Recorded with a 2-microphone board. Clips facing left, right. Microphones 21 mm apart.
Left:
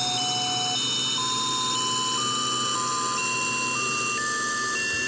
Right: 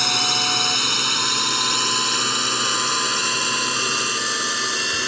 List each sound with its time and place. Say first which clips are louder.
0.0 s a drone: right 7 dB; 40° right (ahead or behind); by 5.1 s 35° right (ahead or behind)